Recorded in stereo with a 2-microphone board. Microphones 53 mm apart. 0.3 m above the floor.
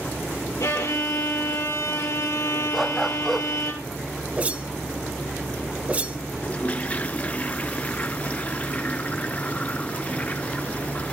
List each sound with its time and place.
0.6 s a violin: 85° left, 3 m
2.7 s a dog barking: centre (ahead or behind), 0.7 m
4.4 s a whoosh: 30° right (ahead or behind), 0.8 m
6.4 s a toilet flushing: 25° left (ahead or behind), 0.7 m